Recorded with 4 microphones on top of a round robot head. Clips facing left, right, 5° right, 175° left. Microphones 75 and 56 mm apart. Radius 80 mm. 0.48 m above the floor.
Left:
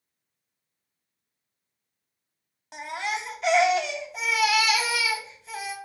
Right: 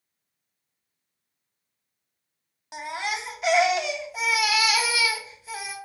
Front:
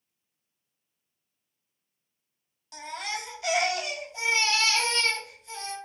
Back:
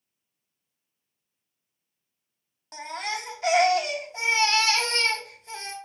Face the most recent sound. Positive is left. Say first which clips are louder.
# even, back 3 dB
turn(degrees=-170)